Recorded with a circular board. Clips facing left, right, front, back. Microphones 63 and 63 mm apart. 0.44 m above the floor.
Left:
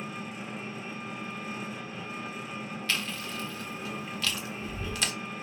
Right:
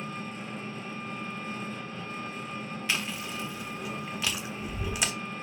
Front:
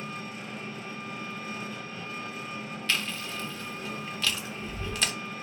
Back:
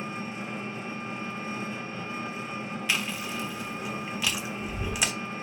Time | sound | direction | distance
0.0 | an engine running | 160° left | 1.0 m
2.9 | chewing | 130° right | 0.7 m